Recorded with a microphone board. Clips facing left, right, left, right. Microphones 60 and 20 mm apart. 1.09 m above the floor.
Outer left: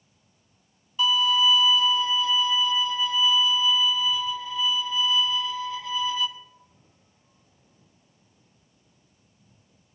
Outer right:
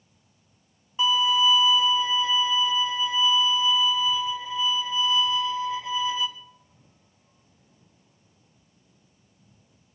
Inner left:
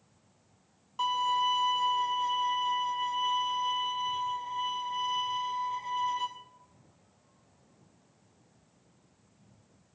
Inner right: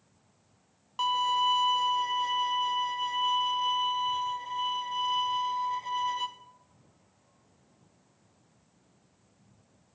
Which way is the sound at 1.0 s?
25° right (ahead or behind).